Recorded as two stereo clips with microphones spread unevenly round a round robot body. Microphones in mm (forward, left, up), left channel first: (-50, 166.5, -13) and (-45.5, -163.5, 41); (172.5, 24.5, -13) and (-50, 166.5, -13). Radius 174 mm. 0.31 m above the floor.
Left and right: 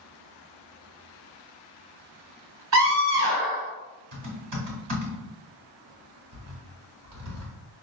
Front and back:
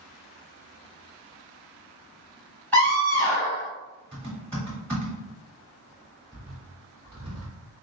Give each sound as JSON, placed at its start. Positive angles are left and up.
{"t": 2.7, "sound": "a scream", "azimuth_deg": -110, "distance_m": 1.6}
{"t": 4.1, "sound": "typing on a keyboard", "azimuth_deg": -115, "distance_m": 1.9}